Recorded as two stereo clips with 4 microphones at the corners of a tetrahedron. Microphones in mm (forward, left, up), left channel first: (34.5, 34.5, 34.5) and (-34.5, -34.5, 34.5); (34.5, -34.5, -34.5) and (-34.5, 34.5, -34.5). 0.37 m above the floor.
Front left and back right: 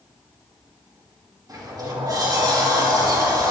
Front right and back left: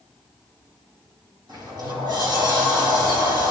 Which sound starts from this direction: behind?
A sliding door, at 1.5 s.